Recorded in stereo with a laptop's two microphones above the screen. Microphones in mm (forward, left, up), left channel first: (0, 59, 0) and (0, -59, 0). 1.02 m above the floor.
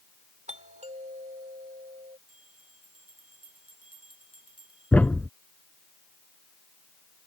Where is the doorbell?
75° right (ahead or behind).